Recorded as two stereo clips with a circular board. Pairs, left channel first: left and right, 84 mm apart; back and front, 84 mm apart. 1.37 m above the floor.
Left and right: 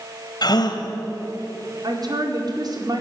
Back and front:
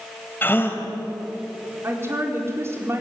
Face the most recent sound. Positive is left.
turn(degrees=-55)